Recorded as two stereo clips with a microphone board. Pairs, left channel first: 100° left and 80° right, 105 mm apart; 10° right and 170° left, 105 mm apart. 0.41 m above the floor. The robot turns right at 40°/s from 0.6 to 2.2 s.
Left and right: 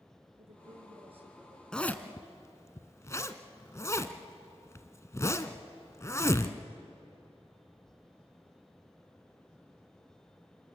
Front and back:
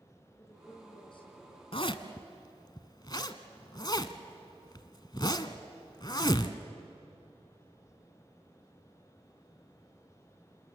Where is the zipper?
15° left, 1.0 m; by 6.6 s 35° left, 1.0 m.